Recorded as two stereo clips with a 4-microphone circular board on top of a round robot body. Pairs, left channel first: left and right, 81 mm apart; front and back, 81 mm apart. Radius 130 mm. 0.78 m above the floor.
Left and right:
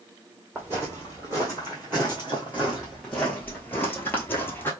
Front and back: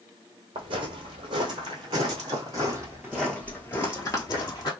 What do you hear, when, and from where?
0.6 s footsteps: 160° right, 1.6 m; by 4.7 s 30° left, 1.1 m